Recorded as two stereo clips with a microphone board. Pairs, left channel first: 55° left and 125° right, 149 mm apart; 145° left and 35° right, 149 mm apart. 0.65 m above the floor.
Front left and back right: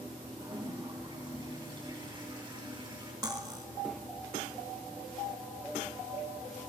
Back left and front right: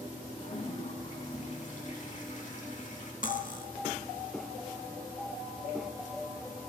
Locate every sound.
0.4 s a toilet flushing: straight behind, 4 m
3.2 s cutlery clinking: 170° left, 1.2 m